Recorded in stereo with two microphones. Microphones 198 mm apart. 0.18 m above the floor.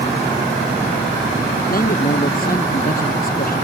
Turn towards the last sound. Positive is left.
turn(degrees=45)  # may be behind; listen again after turning